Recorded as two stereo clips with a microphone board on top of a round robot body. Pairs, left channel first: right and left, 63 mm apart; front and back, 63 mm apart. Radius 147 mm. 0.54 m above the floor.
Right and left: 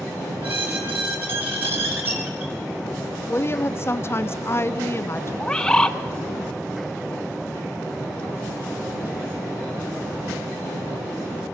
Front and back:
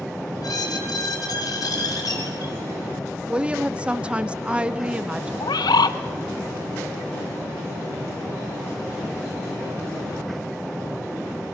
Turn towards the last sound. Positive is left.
turn(degrees=-10)